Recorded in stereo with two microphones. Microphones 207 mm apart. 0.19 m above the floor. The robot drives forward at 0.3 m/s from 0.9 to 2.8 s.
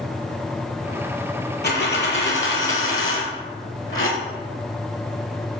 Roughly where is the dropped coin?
Left.